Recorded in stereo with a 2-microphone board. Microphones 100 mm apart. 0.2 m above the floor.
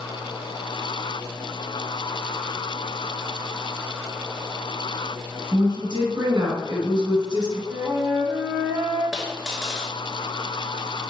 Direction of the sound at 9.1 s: 5° right (ahead or behind).